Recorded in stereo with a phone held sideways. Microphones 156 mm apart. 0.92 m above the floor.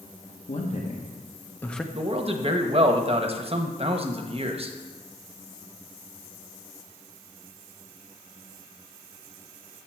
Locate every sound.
0.5 s a man speaking: 45° left (ahead or behind), 1.1 m; by 1.8 s centre (ahead or behind), 0.7 m
1.9 s a man speaking: 35° right (ahead or behind), 0.9 m